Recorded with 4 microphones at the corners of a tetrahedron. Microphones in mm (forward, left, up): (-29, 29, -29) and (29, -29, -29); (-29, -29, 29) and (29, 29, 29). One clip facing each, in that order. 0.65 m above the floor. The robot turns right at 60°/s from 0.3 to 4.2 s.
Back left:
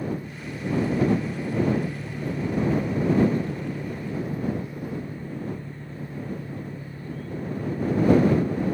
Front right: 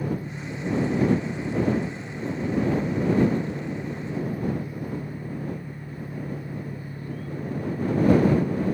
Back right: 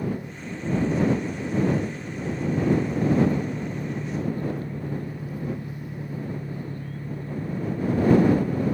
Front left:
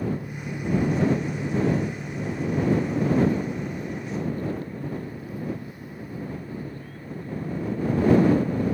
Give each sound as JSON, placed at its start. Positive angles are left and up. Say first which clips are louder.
{"t": 0.0, "sound": "an engine running", "louder": "front right 1 dB, front left 1 dB", "azimuth_deg": 0}